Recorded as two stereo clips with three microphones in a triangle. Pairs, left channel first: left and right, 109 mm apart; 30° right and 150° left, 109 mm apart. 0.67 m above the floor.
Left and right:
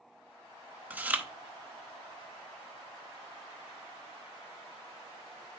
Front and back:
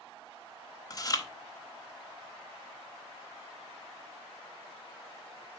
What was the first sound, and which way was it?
Chewing, 30° right.